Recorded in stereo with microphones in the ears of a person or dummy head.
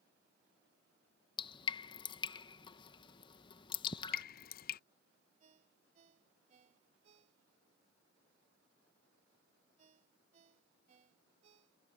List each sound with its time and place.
1.4 s dripping: 30° left (ahead or behind)
3.8 s dripping: 45° left (ahead or behind)
5.4 s a ringtone: 40° right (ahead or behind)